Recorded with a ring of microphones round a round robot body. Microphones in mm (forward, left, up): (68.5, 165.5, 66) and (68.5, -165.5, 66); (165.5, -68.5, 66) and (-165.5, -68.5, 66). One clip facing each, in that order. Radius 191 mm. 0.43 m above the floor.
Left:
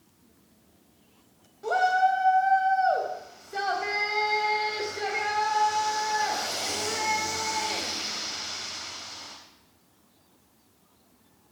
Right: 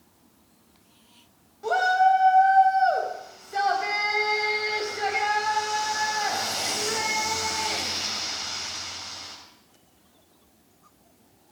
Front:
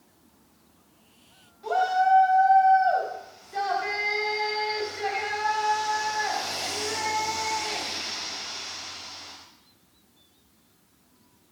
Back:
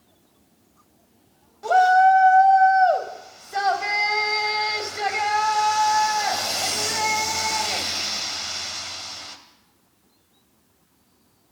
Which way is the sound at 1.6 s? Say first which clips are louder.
Right 2 dB, back 7 dB; straight behind.